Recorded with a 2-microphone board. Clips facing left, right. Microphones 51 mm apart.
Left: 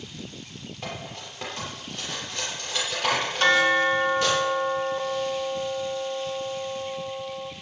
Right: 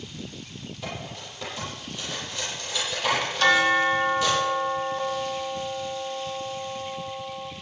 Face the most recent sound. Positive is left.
turn(degrees=40)  # may be behind; listen again after turning